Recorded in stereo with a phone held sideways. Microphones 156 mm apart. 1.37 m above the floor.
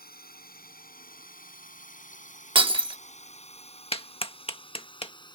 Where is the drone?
75° left (ahead or behind); by 5.4 s 30° left (ahead or behind).